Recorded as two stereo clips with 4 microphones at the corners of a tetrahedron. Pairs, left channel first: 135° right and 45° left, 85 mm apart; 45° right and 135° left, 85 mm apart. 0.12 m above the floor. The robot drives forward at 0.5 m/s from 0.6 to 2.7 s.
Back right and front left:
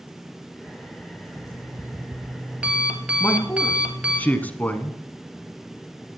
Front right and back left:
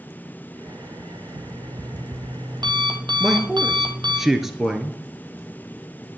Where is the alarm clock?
90° left, 1.3 m; by 4.2 s 120° left, 1.5 m.